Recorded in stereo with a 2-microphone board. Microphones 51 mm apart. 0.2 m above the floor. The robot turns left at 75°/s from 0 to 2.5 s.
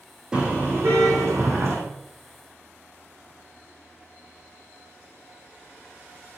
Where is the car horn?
15° right, 6.5 m; by 1.8 s 125° right, 6.5 m.